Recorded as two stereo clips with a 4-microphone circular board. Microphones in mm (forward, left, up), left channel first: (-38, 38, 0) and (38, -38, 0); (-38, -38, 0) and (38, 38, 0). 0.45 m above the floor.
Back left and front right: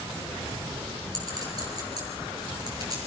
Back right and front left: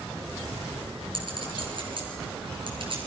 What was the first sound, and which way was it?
A clink, 5° left.